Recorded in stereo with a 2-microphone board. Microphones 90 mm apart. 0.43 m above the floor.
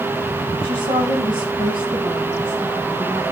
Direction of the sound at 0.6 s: 65° right (ahead or behind).